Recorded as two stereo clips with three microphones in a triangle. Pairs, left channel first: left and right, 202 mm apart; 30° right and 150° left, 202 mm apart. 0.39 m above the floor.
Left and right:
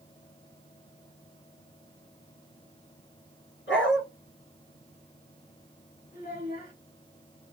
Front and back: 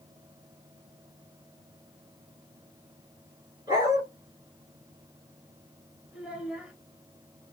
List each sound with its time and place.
3.7 s a dog barking: 80° left, 2 m
6.1 s a child speaking: 65° left, 1.2 m